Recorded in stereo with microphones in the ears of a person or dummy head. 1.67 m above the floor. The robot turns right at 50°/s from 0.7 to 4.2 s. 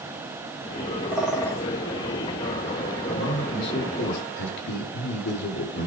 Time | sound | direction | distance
1.1 | a bird | 5° right (ahead or behind) | 2.5 m
3.1 | a man speaking | 10° left | 5 m